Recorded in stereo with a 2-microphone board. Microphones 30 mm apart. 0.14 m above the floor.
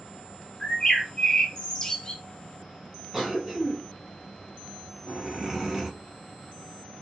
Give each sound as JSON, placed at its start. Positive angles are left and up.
{"t": 0.6, "sound": "a bird", "side_deg": 25, "distance_m": 0.6}
{"t": 3.1, "sound": "a cough", "side_deg": -15, "distance_m": 1.1}